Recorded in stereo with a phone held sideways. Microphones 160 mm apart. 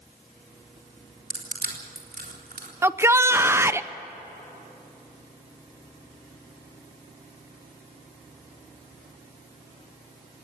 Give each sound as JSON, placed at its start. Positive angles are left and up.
{"t": 1.3, "sound": "crushing", "side_deg": -80, "distance_m": 4.0}
{"t": 2.8, "sound": "a shout", "side_deg": -15, "distance_m": 0.5}